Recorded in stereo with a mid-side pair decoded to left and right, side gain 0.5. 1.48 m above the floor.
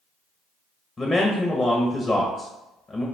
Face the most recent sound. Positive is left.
turn(degrees=25)